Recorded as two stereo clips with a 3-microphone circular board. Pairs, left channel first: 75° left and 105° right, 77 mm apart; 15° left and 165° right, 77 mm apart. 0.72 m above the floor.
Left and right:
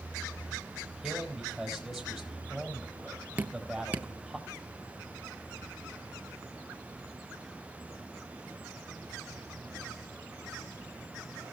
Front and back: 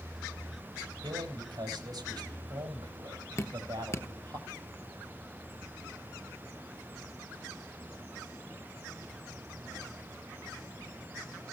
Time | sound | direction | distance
1.0 | a man speaking | 165° left | 4.5 m
3.4 | dripping | 35° right | 0.7 m